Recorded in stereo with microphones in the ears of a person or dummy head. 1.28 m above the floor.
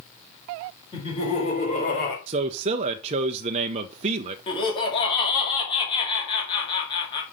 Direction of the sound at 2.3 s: 40° right (ahead or behind).